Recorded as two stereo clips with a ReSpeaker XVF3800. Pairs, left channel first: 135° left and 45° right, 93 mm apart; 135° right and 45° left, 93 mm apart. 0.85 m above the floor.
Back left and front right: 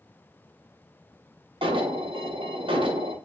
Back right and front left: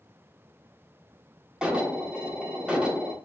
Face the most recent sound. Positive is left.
turn(degrees=-35)